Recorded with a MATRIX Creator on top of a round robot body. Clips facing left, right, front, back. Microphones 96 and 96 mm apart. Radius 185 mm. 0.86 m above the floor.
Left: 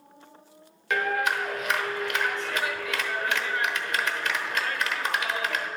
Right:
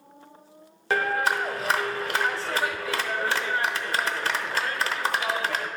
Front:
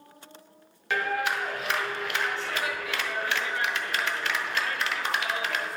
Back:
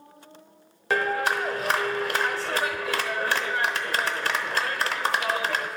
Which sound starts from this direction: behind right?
A clap, at 0.9 s.